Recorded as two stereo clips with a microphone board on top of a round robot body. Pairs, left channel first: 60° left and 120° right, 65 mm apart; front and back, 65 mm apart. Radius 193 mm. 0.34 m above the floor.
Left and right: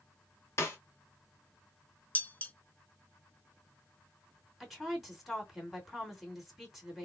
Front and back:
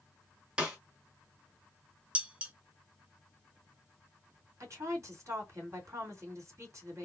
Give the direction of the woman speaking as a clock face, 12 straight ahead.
7 o'clock.